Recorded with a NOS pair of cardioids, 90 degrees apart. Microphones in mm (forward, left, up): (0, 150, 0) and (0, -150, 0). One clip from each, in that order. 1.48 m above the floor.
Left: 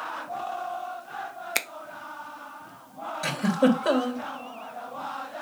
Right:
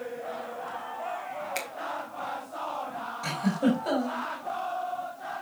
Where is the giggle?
65° left, 3 m.